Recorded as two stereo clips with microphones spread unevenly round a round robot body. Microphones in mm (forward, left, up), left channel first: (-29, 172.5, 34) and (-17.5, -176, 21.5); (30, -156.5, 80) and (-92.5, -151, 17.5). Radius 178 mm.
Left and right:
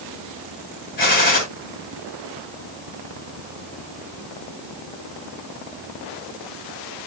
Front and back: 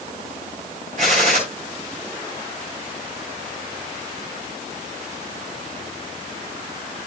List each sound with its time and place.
1.0 s a gunshot: 160° left, 7 m